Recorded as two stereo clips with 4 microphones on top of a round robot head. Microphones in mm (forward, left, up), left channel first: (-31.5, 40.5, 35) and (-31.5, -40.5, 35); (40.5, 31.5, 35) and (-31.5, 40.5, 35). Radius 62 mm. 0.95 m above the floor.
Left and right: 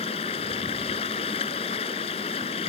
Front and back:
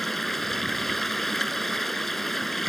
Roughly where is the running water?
Left.